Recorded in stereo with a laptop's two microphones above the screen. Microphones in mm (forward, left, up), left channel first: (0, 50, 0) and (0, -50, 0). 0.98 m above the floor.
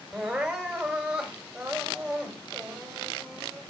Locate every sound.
0.1 s crying: 10° right (ahead or behind), 3 m